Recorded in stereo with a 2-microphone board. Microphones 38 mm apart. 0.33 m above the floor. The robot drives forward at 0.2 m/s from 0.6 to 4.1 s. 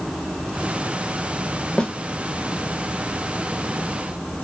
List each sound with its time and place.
1.8 s a snare drum: 20° left (ahead or behind), 0.7 m